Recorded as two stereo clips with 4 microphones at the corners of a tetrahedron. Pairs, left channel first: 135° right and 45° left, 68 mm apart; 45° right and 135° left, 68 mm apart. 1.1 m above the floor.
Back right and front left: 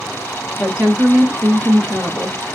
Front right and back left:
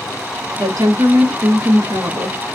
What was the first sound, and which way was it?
A woman speaking, 120° left.